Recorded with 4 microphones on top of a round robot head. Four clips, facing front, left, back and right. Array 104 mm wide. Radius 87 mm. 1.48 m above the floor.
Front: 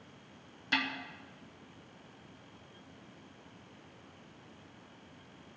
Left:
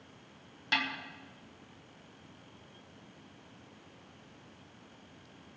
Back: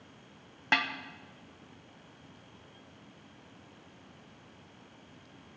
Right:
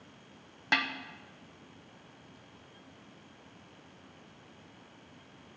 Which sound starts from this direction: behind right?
A snare drum, at 0.7 s.